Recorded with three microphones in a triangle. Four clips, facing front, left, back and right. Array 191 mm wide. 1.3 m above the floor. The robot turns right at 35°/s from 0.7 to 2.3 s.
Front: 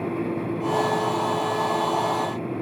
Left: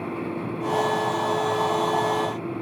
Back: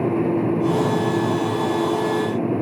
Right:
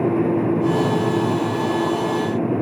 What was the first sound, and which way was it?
Only background noise.